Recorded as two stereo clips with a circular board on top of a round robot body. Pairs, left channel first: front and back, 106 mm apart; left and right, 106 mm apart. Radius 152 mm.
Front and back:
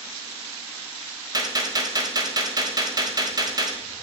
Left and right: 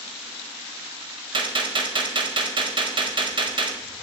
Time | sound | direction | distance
1.3 | a gunshot | 130° right | 1.5 m